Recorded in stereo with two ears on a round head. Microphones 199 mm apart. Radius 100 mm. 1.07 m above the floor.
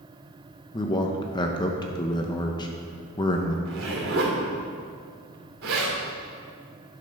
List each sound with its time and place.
0.7 s a man speaking: 20° left (ahead or behind), 0.7 m
3.6 s a zipper: 65° right (ahead or behind), 3 m